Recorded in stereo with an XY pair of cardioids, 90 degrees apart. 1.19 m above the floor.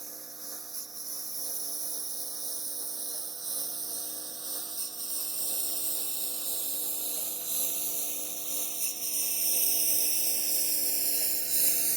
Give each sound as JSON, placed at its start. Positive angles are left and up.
{"t": 0.0, "sound": "a lawn mower", "azimuth_deg": -30}